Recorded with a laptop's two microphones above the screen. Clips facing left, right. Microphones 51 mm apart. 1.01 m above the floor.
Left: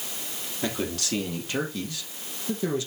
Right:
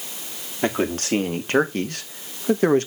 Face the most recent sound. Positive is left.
turn(degrees=-50)  # may be behind; listen again after turning